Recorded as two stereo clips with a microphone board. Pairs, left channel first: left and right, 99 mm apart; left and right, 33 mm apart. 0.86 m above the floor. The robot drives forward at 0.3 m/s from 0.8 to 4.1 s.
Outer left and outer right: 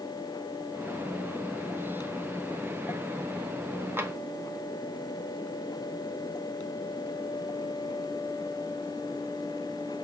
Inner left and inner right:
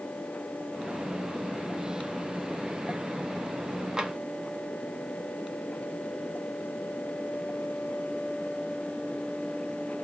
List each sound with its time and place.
4.0 s tapping: 25° right (ahead or behind), 1.0 m